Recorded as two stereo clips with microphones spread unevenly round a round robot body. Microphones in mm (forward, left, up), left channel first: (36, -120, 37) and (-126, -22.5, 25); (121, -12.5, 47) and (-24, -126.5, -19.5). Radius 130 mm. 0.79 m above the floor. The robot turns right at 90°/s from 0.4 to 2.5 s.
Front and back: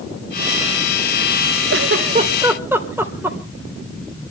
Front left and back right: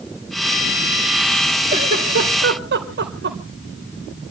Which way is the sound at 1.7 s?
155° left.